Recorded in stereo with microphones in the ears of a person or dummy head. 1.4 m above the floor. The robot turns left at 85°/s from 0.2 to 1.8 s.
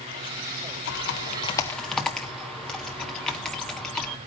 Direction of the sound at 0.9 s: 70° left (ahead or behind).